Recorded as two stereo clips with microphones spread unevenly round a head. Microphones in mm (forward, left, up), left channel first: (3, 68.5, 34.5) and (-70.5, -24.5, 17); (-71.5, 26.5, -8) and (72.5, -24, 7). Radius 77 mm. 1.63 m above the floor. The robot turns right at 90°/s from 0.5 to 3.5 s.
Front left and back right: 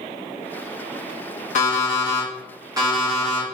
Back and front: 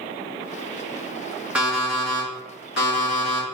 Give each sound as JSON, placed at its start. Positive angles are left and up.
{"t": 1.6, "sound": "an alarm clock", "azimuth_deg": 60, "distance_m": 1.8}